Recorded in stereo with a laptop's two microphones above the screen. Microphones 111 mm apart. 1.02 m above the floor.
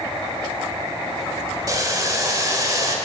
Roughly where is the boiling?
Right.